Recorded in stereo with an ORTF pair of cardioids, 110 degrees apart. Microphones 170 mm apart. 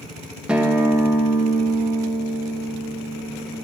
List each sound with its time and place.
0.5 s a guitar: 5° right, 1.1 m